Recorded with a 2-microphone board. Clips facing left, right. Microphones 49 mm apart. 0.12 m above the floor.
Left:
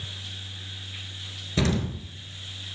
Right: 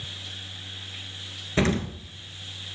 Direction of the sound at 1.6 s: 35° right (ahead or behind).